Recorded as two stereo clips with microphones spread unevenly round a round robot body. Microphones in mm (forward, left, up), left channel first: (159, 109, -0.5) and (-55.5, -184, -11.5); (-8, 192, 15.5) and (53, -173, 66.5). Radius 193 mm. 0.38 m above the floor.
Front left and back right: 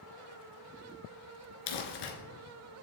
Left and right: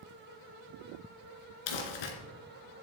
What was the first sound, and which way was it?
Crumpling, 90° left.